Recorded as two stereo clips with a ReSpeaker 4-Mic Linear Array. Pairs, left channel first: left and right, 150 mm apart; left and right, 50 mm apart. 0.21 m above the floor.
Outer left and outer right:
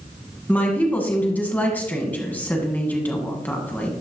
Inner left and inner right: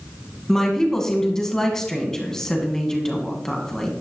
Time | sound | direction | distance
0.5 | a woman speaking | 10° left (ahead or behind) | 1.5 m